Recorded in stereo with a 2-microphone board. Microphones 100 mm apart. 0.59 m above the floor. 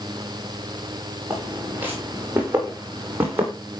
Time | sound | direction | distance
1.3 | footsteps | 20° right (ahead or behind) | 9.5 m